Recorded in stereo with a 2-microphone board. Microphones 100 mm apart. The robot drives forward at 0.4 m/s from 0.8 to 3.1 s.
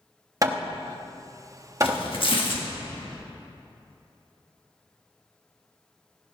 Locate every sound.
0.4 s hammering: 35° right (ahead or behind), 1.0 m; by 2.0 s 30° right (ahead or behind), 1.1 m
1.8 s tearing paper: 65° left (ahead or behind), 1.6 m; by 2.7 s 55° left (ahead or behind), 1.7 m